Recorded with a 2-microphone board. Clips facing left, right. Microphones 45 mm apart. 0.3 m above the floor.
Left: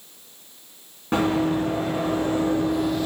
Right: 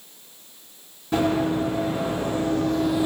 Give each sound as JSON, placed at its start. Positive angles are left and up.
{"t": 1.1, "sound": "running footsteps", "side_deg": 45, "distance_m": 1.9}